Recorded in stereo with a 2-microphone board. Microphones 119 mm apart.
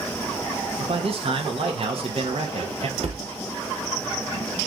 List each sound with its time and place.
0.8 s a man speaking: 55° right (ahead or behind), 0.8 m
3.0 s a cupboard door: 55° right (ahead or behind), 0.7 m